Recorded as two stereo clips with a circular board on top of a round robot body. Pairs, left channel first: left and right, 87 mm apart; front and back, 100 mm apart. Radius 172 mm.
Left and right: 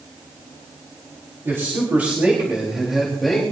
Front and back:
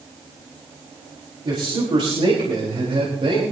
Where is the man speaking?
150° right, 4.5 m; by 3.4 s 175° left, 4 m.